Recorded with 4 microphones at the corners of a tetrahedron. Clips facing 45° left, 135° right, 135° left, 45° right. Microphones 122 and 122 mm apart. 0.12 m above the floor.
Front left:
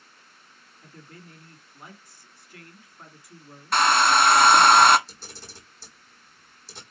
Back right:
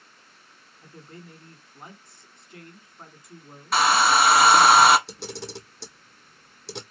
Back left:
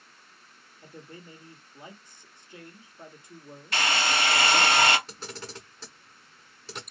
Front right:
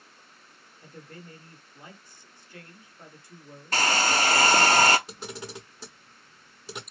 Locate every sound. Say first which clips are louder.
0.8 s a man speaking: back right 3 dB, even; 170° right, 1.5 m
3.7 s a hair dryer: even, front right 3 dB; 50° right, 0.6 m
5.1 s a camera shutter: back right 11 dB, front right 2 dB; 120° right, 1.1 m